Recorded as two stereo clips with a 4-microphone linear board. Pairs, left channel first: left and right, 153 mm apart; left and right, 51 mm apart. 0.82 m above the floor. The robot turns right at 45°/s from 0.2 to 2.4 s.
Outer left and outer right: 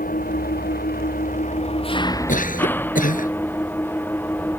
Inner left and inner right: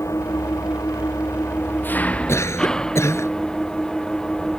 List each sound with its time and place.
0.0 s an engine running: 70° left; by 4.6 s 165° left
2.3 s a cough: 60° left (ahead or behind); by 3.3 s 65° left (ahead or behind)